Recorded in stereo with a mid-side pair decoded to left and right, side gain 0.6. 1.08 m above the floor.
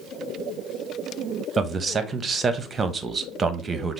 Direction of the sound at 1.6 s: 25° right.